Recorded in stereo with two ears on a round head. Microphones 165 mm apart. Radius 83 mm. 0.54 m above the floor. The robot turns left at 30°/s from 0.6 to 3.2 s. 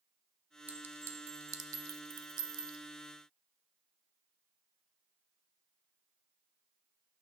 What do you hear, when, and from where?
0.7 s a clink: 10° right (ahead or behind), 0.6 m; by 2.8 s 25° right (ahead or behind), 0.6 m